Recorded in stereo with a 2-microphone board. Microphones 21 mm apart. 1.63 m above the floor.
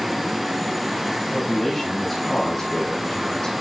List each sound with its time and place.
1.3 s a man speaking: centre (ahead or behind), 4.5 m; by 3.5 s 35° left (ahead or behind), 5 m